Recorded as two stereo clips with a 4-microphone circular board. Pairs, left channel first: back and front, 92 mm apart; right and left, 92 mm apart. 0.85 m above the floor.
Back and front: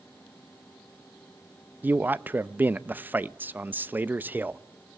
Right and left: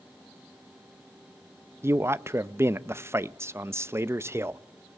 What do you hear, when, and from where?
1.8 s a man speaking: 55° left, 0.5 m